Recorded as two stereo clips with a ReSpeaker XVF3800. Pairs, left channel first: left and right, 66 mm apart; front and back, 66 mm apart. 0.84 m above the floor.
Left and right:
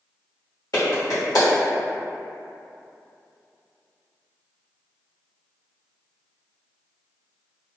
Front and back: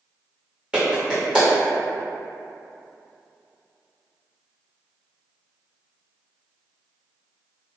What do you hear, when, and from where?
0.7 s a clap: 105° left, 1.1 m